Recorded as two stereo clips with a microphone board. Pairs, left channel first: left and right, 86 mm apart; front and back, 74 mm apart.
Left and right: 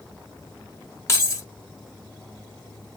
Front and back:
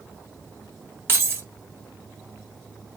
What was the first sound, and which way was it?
Keys jangling, 130° left.